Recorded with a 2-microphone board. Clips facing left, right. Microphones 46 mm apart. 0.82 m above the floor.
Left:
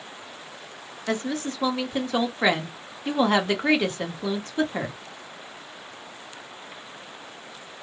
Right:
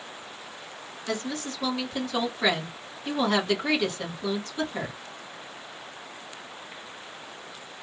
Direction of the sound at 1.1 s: 30° left (ahead or behind).